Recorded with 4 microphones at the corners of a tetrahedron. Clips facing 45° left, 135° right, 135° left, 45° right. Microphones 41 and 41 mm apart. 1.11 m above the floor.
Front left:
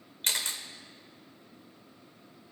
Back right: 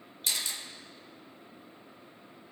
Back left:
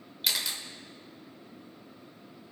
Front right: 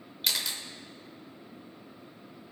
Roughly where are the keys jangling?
I don't hear keys jangling.